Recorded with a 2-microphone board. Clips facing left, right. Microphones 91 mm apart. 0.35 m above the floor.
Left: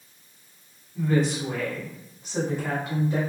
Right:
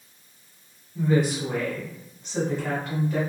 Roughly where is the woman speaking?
Centre.